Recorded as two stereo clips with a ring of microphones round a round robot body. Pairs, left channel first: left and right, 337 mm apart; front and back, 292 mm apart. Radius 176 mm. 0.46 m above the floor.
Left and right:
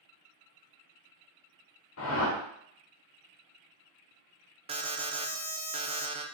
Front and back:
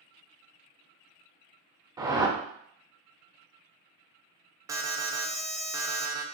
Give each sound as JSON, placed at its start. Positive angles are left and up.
{"t": 2.0, "sound": "a whoosh", "azimuth_deg": 110, "distance_m": 0.8}
{"t": 4.7, "sound": "an alarm", "azimuth_deg": -125, "distance_m": 0.5}